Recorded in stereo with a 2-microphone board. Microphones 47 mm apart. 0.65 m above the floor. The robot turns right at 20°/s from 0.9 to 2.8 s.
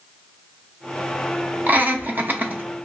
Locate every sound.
1.7 s laughter: 35° right (ahead or behind), 0.6 m; by 2.6 s 40° right (ahead or behind), 0.6 m